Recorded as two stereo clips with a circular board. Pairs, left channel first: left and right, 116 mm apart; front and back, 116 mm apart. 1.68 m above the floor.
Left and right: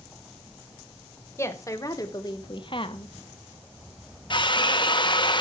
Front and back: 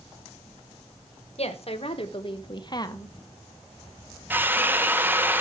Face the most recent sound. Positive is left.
turn(degrees=110)